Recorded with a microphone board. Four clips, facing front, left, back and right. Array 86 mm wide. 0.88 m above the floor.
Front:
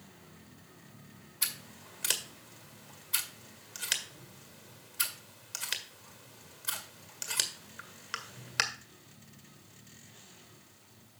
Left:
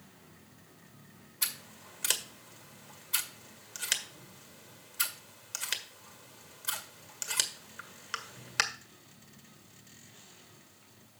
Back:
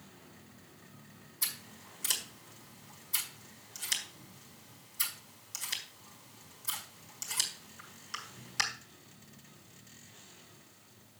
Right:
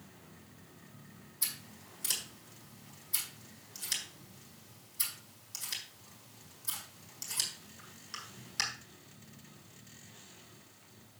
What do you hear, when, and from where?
1.4 s scissors: 50° left, 1.6 m